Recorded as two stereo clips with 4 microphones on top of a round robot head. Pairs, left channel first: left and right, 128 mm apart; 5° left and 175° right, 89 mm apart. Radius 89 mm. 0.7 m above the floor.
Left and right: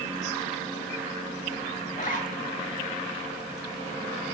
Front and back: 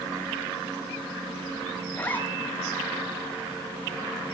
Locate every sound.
1.9 s a zipper: 75° left, 7 m